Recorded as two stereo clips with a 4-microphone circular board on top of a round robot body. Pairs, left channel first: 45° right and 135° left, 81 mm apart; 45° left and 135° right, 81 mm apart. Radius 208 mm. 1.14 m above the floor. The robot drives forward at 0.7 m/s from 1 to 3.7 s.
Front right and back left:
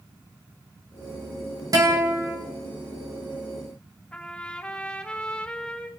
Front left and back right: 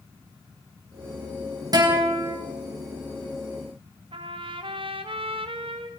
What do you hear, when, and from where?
1.7 s a guitar: straight behind, 4 m
4.1 s a trumpet: 125° right, 1.1 m